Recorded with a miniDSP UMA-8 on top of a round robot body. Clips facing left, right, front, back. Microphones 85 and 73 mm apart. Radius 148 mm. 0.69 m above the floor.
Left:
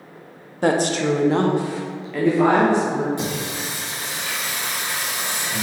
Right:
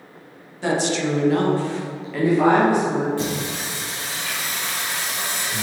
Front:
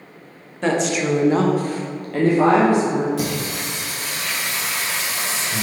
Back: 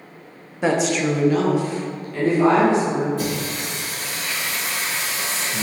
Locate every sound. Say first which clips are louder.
0.6 s a woman speaking: left 3 dB, even; 105° left, 1.0 m; by 3.1 s 20° right, 2.0 m
3.2 s singing: right 1 dB, front 1 dB; 15° left, 1.9 m